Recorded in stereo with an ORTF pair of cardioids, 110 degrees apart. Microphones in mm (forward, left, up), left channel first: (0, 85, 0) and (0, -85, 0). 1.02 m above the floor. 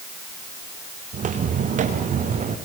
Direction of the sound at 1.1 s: 50° right.